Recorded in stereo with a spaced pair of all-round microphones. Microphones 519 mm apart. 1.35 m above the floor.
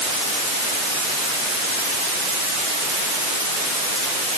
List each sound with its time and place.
Only background noise.